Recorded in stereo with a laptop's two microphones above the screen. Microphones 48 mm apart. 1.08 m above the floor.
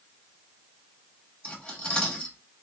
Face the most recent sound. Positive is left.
turn(degrees=25)  # may be behind; listen again after turning